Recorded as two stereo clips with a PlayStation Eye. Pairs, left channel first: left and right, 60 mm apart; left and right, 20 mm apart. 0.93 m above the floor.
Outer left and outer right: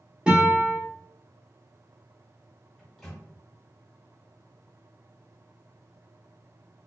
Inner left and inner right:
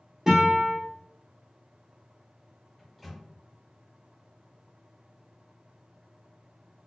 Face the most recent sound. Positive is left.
turn(degrees=5)  # may be behind; listen again after turning